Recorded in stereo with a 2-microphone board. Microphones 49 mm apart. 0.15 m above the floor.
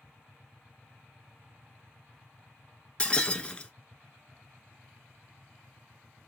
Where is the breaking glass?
20° left (ahead or behind), 0.7 m.